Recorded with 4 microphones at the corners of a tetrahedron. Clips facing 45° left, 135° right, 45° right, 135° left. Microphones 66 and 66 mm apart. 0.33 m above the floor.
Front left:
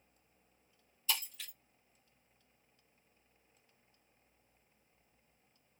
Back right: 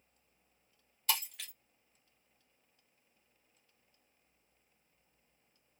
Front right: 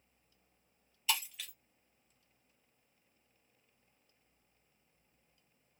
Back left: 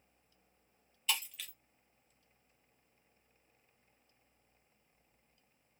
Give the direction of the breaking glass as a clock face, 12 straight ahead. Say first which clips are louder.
Back right 3 dB, front right 2 dB; 4 o'clock.